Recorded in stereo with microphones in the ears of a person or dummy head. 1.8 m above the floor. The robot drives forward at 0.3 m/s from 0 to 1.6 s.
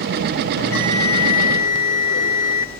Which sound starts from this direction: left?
A bell, at 0.6 s.